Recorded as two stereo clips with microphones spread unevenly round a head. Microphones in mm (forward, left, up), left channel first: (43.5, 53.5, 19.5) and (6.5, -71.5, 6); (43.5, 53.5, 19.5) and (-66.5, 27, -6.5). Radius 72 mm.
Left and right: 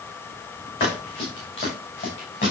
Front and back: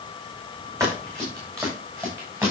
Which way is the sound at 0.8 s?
130° left.